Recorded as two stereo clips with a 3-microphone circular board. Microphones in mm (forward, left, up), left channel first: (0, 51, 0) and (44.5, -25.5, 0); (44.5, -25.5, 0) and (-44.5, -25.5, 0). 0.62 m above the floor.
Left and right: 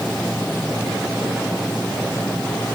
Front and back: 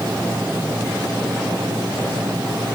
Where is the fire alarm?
I don't hear a fire alarm.